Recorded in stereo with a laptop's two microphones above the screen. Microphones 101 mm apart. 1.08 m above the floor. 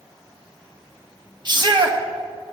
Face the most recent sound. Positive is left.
turn(degrees=-45)  # may be behind; listen again after turning